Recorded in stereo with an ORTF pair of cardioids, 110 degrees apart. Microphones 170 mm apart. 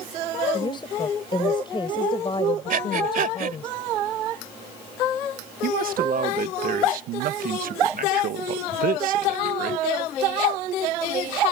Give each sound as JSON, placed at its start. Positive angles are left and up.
{"t": 0.5, "sound": "a woman speaking", "azimuth_deg": 30}
{"t": 2.7, "sound": "breathing", "azimuth_deg": -55}
{"t": 5.6, "sound": "a man speaking", "azimuth_deg": -60}